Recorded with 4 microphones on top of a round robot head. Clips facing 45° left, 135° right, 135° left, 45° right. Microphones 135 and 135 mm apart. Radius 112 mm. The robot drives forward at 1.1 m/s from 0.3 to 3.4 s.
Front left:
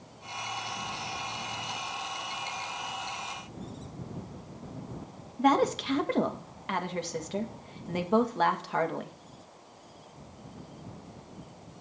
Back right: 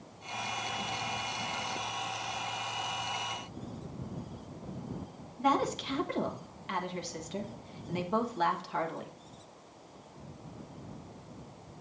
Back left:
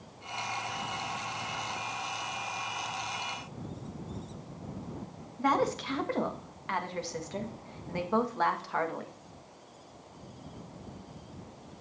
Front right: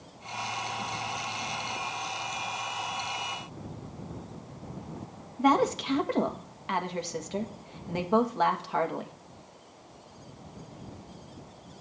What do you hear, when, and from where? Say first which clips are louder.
5.4 s a woman speaking: front left 5 dB, front right 4 dB; 25° left, 1.5 m